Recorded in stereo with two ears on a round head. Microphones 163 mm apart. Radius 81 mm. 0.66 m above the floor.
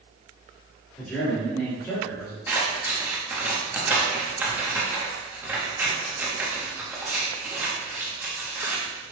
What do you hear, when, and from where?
1.0 s a man speaking: 5° left (ahead or behind), 1.7 m; by 2.4 s 20° left (ahead or behind), 1.1 m
2.5 s scissors: 10° right (ahead or behind), 0.8 m